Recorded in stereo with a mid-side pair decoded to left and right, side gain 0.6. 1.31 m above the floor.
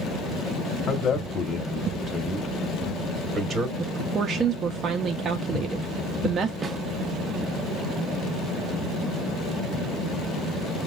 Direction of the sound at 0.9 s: 45° left.